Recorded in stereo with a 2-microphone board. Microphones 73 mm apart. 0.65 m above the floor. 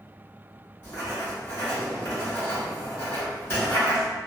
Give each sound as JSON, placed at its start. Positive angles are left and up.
{"t": 0.8, "sound": "writing", "side_deg": 30, "distance_m": 1.3}